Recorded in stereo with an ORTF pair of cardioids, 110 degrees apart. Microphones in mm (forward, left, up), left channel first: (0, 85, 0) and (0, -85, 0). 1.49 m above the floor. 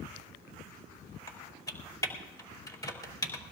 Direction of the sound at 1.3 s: 20° left.